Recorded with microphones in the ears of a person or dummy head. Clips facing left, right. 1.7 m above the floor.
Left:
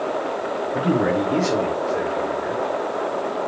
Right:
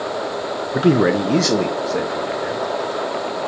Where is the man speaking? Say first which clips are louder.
Right 5 dB; 70° right (ahead or behind), 0.7 m.